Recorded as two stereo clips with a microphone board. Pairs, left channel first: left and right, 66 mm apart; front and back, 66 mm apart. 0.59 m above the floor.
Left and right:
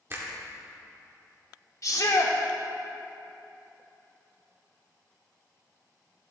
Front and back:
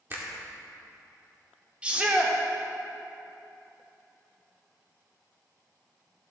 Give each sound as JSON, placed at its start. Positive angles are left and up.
{"t": 0.1, "sound": "a finger snap", "azimuth_deg": -130, "distance_m": 1.4}
{"t": 1.8, "sound": "a shout", "azimuth_deg": 110, "distance_m": 1.1}